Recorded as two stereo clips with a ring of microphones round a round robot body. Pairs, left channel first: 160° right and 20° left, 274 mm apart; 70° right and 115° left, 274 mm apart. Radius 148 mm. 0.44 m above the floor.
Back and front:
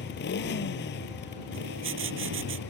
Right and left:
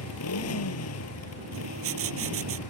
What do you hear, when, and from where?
0.0 s a motorcycle: 105° right
1.5 s writing: 70° left